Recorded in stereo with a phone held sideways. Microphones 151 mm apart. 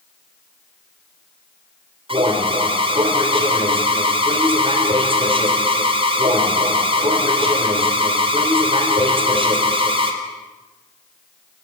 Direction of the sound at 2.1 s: 35° right (ahead or behind).